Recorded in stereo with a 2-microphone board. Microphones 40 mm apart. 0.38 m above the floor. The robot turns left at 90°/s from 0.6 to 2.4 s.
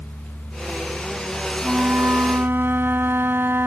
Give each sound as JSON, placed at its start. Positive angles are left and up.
{"t": 1.6, "sound": "a flute", "azimuth_deg": -25}